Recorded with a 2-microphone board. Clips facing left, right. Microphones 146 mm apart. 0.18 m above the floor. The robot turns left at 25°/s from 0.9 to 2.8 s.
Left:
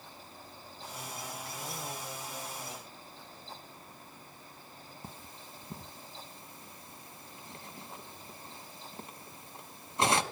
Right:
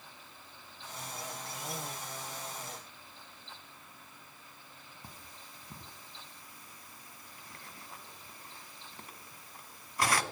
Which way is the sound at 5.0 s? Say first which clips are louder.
Left 4 dB; 25° left (ahead or behind).